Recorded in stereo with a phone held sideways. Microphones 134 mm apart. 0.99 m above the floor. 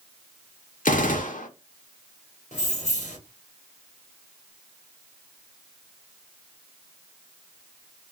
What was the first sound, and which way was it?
A gunshot, 80° left.